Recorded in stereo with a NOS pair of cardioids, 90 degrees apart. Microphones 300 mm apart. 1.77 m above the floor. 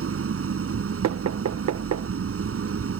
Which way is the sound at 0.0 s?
45° right.